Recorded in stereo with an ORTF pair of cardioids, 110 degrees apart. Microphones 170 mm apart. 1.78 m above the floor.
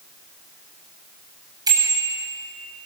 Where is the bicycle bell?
25° right, 8.5 m.